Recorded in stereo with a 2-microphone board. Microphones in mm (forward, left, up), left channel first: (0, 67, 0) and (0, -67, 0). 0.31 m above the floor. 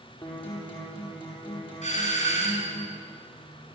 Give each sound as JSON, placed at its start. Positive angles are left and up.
{"t": 0.2, "sound": "a guitar", "side_deg": 40, "distance_m": 6.5}
{"t": 1.8, "sound": "a doorbell", "side_deg": 60, "distance_m": 4.5}